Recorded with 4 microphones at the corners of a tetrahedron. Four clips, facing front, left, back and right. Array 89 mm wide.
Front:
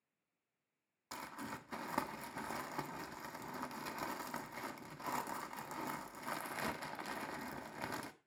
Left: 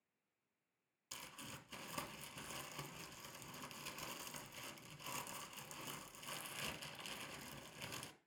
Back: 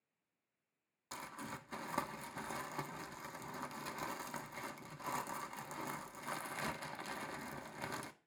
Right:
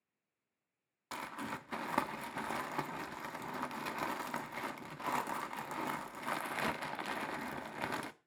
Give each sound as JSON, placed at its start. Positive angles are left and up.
{"t": 1.1, "sound": "crumpling", "azimuth_deg": -85, "distance_m": 1.2}